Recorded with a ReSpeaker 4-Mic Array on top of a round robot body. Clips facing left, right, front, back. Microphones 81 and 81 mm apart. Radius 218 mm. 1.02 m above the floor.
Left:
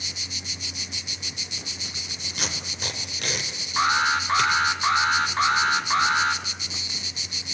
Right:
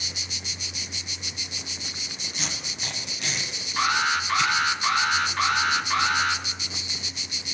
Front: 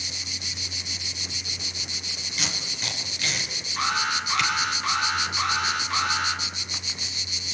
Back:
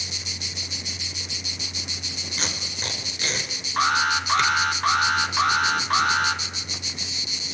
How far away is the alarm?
About 3.5 m.